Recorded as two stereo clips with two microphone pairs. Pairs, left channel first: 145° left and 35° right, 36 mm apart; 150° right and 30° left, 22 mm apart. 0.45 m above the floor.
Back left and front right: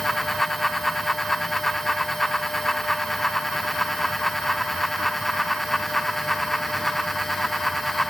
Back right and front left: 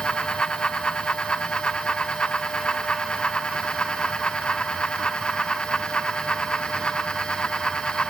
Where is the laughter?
I don't hear laughter.